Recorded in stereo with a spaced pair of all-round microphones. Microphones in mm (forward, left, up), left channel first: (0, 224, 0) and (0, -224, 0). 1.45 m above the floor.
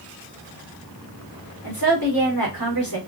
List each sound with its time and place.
1.6 s a woman speaking: 50° left (ahead or behind), 1.6 m